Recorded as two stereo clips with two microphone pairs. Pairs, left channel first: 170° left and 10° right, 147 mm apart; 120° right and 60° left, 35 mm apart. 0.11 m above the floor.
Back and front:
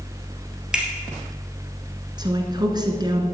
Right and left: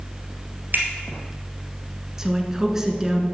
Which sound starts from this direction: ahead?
A woman speaking, at 2.2 s.